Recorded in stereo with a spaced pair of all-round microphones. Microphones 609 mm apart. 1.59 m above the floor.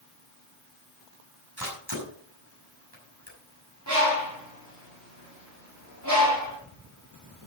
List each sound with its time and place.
1.6 s a camera shutter: 35° right (ahead or behind), 5.5 m
3.9 s a bird: 25° right (ahead or behind), 4.5 m